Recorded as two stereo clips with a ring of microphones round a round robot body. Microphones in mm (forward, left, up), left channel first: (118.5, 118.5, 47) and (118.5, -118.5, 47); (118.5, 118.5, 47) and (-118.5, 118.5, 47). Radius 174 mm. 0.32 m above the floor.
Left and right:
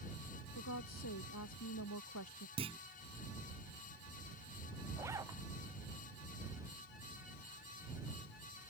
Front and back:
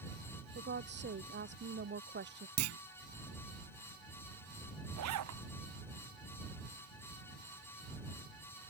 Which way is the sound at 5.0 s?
170° right.